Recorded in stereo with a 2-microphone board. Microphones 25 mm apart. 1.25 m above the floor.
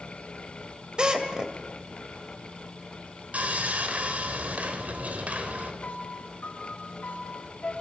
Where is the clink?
I don't hear a clink.